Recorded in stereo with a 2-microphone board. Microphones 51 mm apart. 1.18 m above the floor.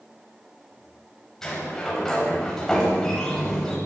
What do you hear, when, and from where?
1.4 s a sliding door: 10° left (ahead or behind), 8.5 m